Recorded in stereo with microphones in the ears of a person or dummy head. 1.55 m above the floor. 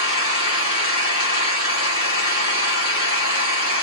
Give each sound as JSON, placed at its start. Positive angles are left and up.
{"t": 0.0, "sound": "an engine running", "side_deg": 35, "distance_m": 1.1}